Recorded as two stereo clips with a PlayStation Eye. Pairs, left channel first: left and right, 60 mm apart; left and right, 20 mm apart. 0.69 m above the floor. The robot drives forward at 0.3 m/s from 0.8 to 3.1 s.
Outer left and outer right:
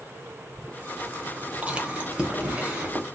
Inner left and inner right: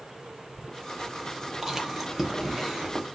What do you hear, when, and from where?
1.6 s chewing: 20° right (ahead or behind), 0.6 m; by 3.0 s 10° right (ahead or behind), 1.0 m